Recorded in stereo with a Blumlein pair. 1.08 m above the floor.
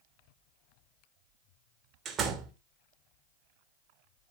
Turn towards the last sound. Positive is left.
turn(degrees=-25)